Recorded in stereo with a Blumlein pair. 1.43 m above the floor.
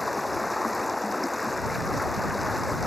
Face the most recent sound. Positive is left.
turn(degrees=5)